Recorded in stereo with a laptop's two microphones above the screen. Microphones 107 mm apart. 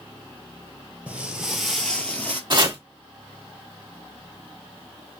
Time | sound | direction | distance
1.1 | footsteps | 15° right (ahead or behind) | 1.0 m
2.5 | chopping | 45° right (ahead or behind) | 1.2 m